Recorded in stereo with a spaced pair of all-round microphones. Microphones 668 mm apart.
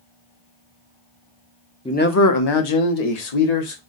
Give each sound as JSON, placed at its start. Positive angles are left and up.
{"t": 1.9, "sound": "a man speaking", "side_deg": 10, "distance_m": 0.5}